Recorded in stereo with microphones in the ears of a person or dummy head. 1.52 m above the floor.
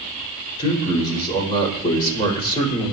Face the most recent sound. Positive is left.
turn(degrees=25)  # may be behind; listen again after turning